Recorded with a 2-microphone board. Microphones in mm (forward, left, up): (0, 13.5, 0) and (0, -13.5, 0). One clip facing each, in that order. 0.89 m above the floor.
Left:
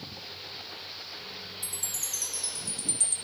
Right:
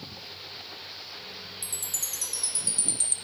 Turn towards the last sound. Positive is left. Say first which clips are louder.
# right 2 dB
turn(degrees=-65)  # may be behind; listen again after turning